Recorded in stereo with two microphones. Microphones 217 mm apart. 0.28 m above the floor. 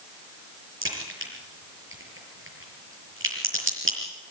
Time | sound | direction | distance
0.8 | a crack | 70° right (ahead or behind) | 6 m